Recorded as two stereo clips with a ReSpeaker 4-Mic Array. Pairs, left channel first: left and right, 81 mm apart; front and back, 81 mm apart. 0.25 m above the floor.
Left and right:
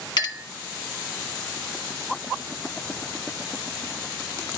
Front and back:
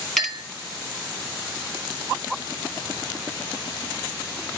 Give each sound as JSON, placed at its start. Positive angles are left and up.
{"t": 0.2, "sound": "a clink", "azimuth_deg": 85, "distance_m": 1.7}